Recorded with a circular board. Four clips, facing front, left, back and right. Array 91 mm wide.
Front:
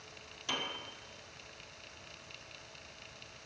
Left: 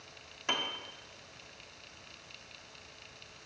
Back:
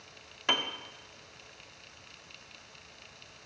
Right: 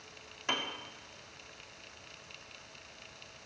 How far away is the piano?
About 1.7 m.